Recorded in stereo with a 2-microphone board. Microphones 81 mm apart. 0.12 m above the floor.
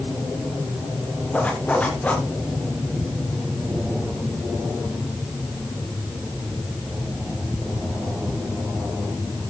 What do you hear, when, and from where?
1.3 s a zipper: 20° left (ahead or behind), 7.5 m